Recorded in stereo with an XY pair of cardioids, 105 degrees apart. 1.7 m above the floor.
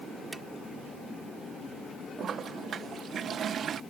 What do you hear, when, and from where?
0.3 s a drawer: 20° right
2.2 s a toilet flushing: 50° right